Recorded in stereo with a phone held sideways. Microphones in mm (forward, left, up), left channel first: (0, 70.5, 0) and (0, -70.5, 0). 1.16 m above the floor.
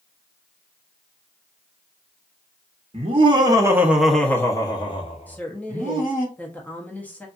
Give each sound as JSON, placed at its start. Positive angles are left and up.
{"t": 2.9, "sound": "laughter", "side_deg": -45, "distance_m": 0.9}
{"t": 5.3, "sound": "a woman speaking", "side_deg": 10, "distance_m": 0.7}